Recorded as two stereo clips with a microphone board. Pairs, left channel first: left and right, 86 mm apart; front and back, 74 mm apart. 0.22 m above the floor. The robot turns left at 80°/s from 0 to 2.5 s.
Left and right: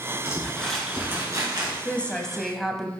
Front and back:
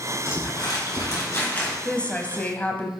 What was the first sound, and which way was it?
Crumpling, 40° left.